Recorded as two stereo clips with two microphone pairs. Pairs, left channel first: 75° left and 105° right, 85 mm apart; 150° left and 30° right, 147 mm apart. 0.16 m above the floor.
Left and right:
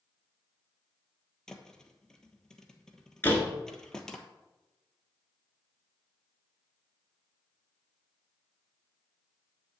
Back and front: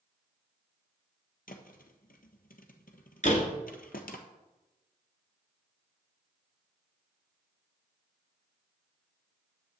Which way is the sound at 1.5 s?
155° left.